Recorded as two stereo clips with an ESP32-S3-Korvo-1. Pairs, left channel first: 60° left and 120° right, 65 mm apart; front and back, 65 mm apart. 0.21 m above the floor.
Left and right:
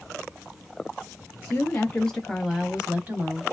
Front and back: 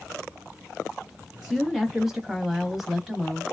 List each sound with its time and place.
1.4 s a woman speaking: 95° left, 1.3 m; by 3.4 s 95° right, 1.2 m